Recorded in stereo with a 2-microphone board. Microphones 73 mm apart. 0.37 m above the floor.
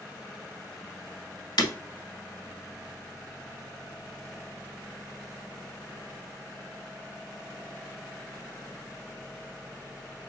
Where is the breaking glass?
80° left, 0.8 m.